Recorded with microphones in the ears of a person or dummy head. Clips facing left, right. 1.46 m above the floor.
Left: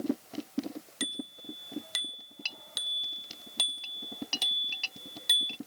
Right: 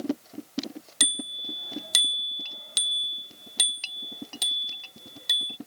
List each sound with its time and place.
1.0 s a bicycle bell: 75° right (ahead or behind); by 5.6 s centre (ahead or behind)